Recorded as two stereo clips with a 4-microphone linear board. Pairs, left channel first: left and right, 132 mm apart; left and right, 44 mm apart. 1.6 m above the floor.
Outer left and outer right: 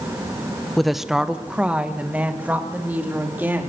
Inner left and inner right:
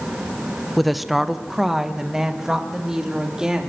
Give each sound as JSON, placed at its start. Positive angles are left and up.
{"t": 0.8, "sound": "a woman speaking", "side_deg": 0, "distance_m": 0.8}